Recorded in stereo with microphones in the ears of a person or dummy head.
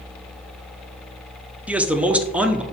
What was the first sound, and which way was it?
A man speaking, 10° right (ahead or behind).